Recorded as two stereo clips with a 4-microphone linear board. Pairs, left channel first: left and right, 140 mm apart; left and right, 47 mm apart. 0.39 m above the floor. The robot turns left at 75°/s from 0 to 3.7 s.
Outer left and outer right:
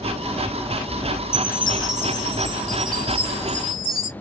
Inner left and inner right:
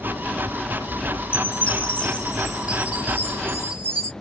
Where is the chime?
80° left, 2.0 m; by 4.1 s 100° right, 2.0 m.